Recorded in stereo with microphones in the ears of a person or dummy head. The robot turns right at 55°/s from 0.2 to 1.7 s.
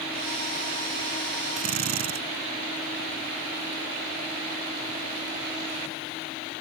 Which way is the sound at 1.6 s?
40° right (ahead or behind).